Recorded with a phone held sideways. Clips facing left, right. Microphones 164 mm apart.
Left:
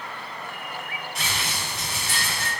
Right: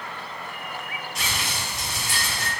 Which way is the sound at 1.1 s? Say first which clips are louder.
Even; 55° left (ahead or behind).